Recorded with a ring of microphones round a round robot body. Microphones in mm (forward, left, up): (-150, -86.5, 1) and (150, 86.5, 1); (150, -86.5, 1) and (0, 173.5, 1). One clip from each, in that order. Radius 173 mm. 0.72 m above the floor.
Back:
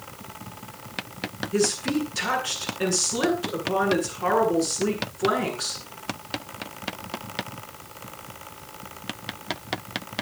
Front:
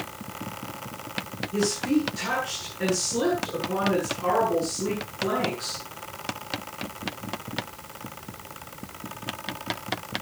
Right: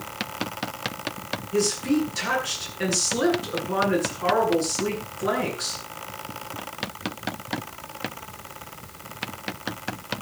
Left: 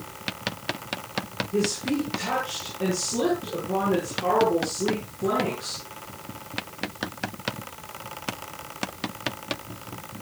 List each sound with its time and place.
1.5 s a woman speaking: 90° right, 9.5 m